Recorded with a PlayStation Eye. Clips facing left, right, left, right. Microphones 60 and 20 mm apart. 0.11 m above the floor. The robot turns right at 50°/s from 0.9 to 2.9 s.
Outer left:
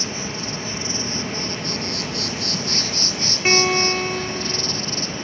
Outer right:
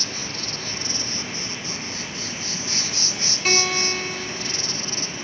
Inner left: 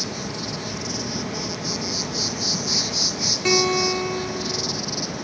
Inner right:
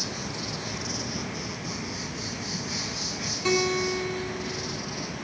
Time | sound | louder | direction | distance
0.0 | an insect | outer left 4 dB, inner left 4 dB | 25° left | 1.2 m
3.5 | a guitar | outer left 5 dB, inner left 4 dB | 30° left (ahead or behind) | 2.0 m